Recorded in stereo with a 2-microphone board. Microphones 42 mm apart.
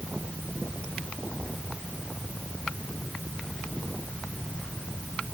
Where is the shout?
No shout in this recording.